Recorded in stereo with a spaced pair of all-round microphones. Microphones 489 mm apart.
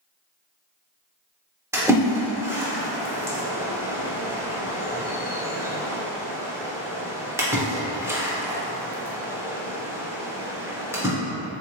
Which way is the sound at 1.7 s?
5° right (ahead or behind).